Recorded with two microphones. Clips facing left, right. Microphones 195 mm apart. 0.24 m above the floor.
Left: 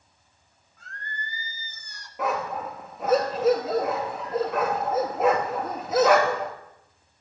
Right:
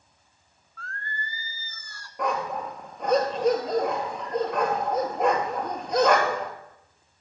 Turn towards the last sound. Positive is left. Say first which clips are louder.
# even
turn(degrees=5)  # may be behind; listen again after turning